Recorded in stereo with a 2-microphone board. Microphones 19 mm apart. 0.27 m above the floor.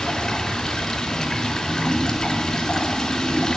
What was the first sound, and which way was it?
Running water, 40° left (ahead or behind).